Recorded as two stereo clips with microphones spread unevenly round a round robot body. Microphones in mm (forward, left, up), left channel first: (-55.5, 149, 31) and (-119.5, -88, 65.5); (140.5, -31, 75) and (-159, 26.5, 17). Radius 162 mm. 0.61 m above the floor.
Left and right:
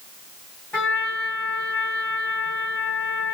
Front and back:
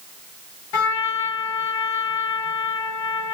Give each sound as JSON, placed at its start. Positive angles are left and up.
{"t": 0.7, "sound": "a trumpet", "azimuth_deg": -10, "distance_m": 1.8}